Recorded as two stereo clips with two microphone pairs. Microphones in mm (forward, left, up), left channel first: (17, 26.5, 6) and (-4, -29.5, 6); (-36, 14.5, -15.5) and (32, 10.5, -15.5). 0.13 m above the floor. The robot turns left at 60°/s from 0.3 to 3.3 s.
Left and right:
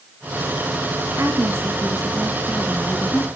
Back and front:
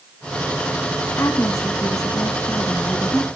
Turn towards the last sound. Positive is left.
turn(degrees=100)